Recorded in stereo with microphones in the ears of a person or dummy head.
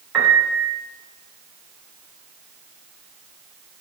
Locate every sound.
0.1 s a piano: 5° right (ahead or behind), 0.7 m